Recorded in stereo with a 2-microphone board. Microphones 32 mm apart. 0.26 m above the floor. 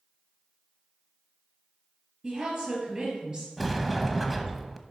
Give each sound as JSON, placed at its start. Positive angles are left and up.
{"t": 2.2, "sound": "a woman speaking", "side_deg": -30, "distance_m": 4.5}
{"t": 3.6, "sound": "a sliding door", "side_deg": -5, "distance_m": 0.8}